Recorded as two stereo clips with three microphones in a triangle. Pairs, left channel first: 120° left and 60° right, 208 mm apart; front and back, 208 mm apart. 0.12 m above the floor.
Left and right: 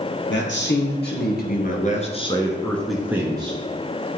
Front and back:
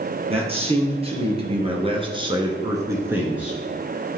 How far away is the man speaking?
About 3.5 m.